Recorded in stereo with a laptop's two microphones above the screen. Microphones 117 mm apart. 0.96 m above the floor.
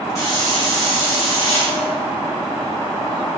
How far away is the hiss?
About 1.5 m.